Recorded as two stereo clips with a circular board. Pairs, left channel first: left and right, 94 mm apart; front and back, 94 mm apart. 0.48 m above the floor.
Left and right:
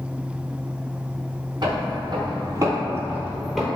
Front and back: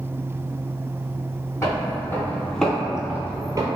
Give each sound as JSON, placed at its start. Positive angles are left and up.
{"t": 1.6, "sound": "footsteps", "azimuth_deg": -60, "distance_m": 1.0}